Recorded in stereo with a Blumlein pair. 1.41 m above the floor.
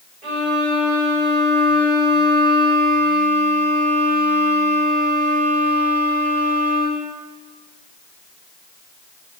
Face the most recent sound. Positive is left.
turn(degrees=-30)